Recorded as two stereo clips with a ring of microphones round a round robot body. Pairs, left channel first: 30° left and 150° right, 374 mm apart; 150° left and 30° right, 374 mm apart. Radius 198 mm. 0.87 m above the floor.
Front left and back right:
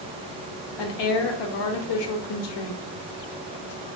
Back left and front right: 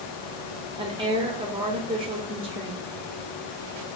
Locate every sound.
0.8 s a woman speaking: 45° left, 0.9 m